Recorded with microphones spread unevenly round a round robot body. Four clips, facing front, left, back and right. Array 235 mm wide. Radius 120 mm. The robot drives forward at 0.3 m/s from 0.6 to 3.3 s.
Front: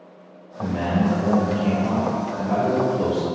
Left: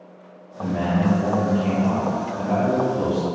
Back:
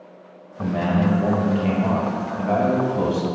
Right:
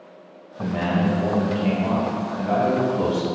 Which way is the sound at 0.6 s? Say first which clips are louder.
Left 1 dB, back 1 dB; 145° right.